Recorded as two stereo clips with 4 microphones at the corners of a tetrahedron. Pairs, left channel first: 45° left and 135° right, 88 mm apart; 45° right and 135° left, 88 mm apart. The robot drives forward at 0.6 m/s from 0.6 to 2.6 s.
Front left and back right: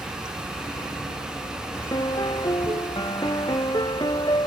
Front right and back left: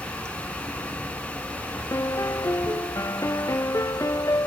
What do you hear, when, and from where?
0.0 s running water: 170° right
1.9 s a piano: 10° left